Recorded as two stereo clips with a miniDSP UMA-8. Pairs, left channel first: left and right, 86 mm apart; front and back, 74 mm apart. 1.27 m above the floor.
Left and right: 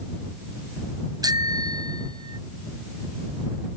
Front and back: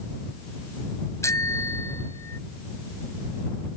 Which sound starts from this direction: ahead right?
A bicycle bell, at 1.2 s.